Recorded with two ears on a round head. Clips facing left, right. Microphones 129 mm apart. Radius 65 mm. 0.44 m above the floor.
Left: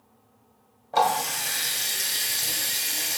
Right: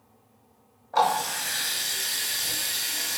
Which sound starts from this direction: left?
A running tap, at 0.9 s.